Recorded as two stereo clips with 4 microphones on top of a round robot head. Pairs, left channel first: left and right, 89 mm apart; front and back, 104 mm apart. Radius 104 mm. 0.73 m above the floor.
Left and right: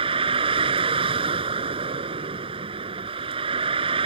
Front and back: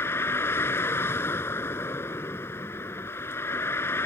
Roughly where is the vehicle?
Right.